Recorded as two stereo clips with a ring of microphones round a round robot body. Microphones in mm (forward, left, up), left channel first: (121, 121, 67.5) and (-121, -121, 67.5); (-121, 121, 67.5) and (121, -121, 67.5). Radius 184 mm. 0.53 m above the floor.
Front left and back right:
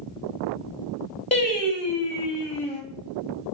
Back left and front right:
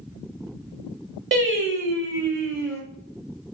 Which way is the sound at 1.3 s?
15° right.